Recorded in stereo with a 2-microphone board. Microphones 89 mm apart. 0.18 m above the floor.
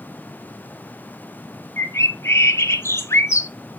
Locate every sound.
1.8 s a bird: 30° left (ahead or behind), 0.8 m